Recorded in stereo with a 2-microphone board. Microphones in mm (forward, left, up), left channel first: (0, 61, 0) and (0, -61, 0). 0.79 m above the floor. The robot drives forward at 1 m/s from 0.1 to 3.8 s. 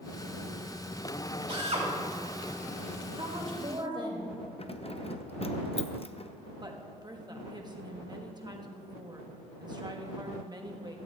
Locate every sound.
1.5 s a drill: 50° right (ahead or behind), 3.5 m; by 1.9 s 55° right (ahead or behind), 3 m
3.2 s a woman speaking: 50° right (ahead or behind), 2.5 m; by 4.3 s 40° right (ahead or behind), 3 m
4.6 s keys jangling: 55° left (ahead or behind), 0.6 m
6.6 s a woman speaking: 35° right (ahead or behind), 1.3 m